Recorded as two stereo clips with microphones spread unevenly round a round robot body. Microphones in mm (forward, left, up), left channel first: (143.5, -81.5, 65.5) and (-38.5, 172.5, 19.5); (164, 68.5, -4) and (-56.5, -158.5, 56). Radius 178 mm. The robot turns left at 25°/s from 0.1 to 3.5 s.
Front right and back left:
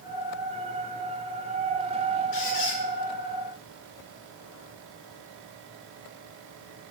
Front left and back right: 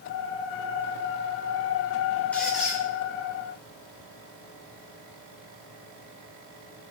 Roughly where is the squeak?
Ahead right.